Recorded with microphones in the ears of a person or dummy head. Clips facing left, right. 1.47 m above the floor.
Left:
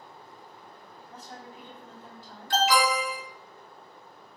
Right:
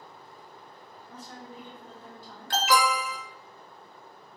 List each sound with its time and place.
1.1 s a woman speaking: 45° right (ahead or behind), 1.7 m
2.5 s an alarm: 50° right (ahead or behind), 0.8 m